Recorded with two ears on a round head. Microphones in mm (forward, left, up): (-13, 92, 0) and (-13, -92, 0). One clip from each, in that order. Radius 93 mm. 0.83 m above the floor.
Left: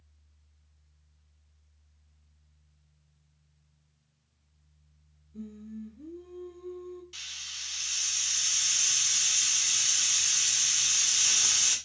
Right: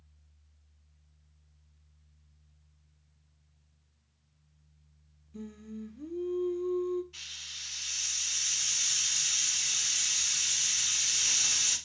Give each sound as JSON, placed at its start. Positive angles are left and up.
{"t": 5.3, "sound": "singing", "side_deg": -55, "distance_m": 0.5}
{"t": 7.1, "sound": "a hiss", "side_deg": 70, "distance_m": 1.6}